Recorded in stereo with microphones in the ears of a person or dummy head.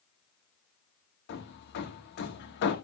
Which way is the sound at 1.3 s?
70° left (ahead or behind).